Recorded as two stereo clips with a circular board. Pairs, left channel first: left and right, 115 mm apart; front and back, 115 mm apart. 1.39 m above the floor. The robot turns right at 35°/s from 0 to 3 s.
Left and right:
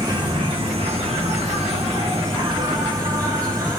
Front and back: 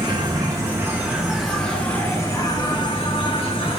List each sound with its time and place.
0.0 s an insect: 140° right, 2.5 m; by 3.8 s 35° right, 2.5 m